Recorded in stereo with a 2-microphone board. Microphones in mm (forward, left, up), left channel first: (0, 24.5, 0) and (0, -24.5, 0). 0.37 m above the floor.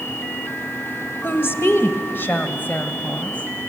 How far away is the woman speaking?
About 1.4 m.